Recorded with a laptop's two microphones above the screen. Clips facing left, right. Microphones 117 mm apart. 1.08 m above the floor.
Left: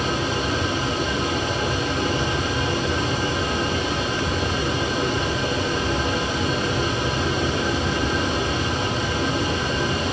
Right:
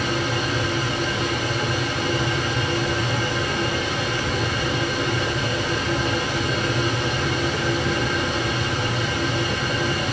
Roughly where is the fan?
Left.